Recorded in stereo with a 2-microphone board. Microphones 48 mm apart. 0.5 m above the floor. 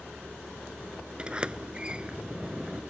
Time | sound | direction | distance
1.2 | a sliding door | 20° right (ahead or behind) | ?